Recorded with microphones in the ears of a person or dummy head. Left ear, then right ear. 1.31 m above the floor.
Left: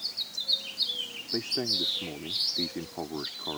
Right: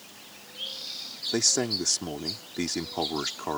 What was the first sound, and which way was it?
A man speaking, 85° right.